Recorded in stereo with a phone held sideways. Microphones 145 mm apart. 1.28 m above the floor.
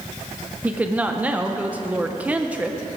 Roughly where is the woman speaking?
Centre.